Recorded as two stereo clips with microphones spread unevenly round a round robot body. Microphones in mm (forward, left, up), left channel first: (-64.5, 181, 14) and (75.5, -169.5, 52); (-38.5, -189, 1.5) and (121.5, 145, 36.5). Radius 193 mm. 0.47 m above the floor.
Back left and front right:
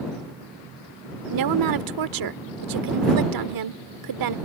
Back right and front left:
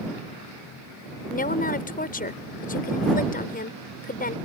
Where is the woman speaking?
60° right.